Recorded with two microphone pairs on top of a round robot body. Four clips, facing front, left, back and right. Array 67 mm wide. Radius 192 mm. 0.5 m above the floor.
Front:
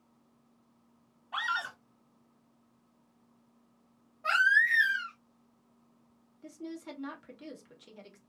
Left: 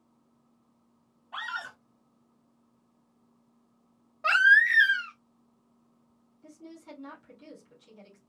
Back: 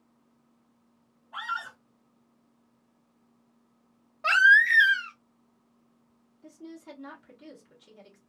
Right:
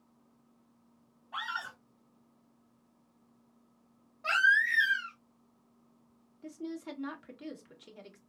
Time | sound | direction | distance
1.3 | a scream | 10° left | 1.3 m
4.2 | a baby crying | 135° left | 0.8 m
6.4 | a woman speaking | 65° right | 1.8 m